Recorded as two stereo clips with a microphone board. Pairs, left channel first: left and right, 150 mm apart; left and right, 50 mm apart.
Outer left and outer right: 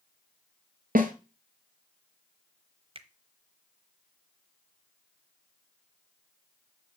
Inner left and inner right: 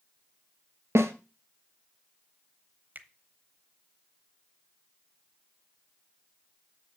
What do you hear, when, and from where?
0.9 s a snare drum: 80° right, 1.1 m
3.0 s a finger snap: 40° right (ahead or behind), 0.9 m